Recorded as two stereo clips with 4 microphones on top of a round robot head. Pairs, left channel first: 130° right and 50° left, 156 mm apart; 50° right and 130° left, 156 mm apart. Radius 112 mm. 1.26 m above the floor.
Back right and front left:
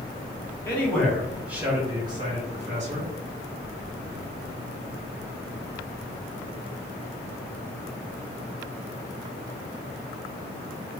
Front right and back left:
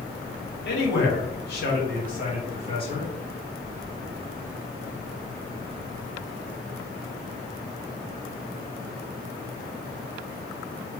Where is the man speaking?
55° right, 1.5 m; by 3.1 s 10° left, 1.7 m.